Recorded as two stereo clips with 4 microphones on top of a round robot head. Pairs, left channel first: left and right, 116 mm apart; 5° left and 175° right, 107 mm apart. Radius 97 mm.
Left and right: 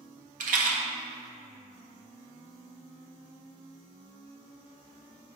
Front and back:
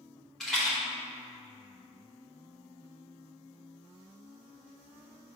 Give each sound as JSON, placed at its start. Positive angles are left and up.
{"t": 0.4, "sound": "a rattle", "azimuth_deg": -80, "distance_m": 1.0}